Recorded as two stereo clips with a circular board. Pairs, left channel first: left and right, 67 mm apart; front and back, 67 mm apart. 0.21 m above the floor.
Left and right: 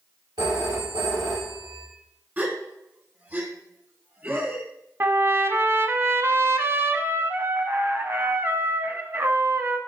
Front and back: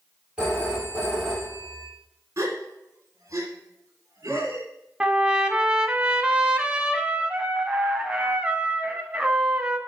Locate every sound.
0.4 s a phone ringing: 105° right, 5 m
2.4 s a gasp: 145° right, 1.9 m
5.0 s a trumpet: 115° right, 0.8 m